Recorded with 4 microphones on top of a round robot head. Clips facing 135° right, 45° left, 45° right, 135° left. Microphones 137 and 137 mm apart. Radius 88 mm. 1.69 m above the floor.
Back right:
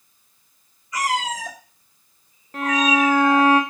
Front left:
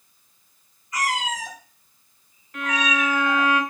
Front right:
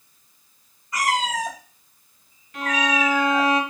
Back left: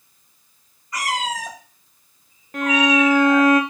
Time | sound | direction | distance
0.9 | a cat meowing | 135° right | 2.5 m
2.5 | a violin | 170° left | 1.0 m